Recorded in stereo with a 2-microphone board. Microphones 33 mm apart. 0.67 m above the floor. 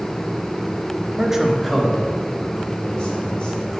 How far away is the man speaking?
About 1.0 m.